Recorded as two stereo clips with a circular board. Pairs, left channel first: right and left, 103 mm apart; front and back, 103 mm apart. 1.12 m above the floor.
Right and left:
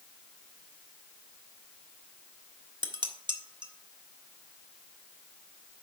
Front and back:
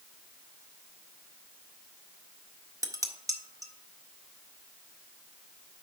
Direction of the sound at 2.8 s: 125° left.